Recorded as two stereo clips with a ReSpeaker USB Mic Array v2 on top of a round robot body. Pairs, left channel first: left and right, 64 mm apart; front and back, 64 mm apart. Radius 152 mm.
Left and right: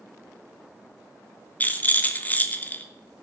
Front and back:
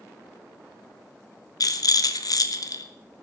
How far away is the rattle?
About 1.2 m.